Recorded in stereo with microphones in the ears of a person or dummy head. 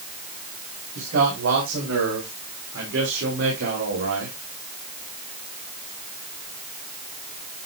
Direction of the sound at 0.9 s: 85° right.